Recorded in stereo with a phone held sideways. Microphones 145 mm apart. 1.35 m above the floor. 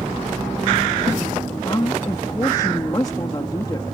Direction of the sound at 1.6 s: 30° left (ahead or behind).